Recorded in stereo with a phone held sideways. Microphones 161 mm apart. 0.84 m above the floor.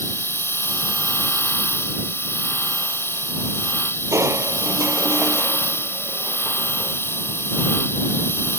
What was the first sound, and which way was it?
A machine running, 15° left (ahead or behind).